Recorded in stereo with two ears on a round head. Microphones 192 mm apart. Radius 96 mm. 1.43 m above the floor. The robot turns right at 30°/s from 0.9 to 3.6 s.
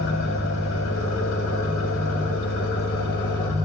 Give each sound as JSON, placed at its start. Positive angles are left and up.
{"t": 0.0, "sound": "an engine running", "azimuth_deg": 65, "distance_m": 1.9}